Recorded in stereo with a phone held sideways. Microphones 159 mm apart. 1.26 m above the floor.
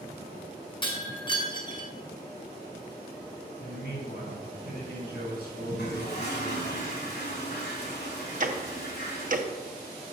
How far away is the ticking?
About 0.9 m.